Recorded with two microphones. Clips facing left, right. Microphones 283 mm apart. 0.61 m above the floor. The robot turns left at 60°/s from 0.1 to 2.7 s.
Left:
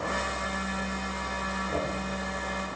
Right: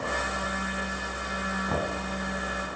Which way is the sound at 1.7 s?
75° right (ahead or behind).